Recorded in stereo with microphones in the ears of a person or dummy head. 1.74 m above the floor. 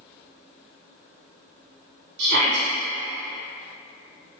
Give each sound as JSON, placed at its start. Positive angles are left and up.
{"t": 2.2, "sound": "a shout", "side_deg": -70, "distance_m": 1.1}